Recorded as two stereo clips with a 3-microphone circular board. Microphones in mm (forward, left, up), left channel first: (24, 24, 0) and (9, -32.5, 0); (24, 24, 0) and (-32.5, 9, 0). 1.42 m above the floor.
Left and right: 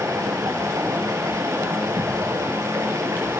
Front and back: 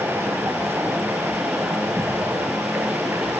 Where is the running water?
115° right, 5 m.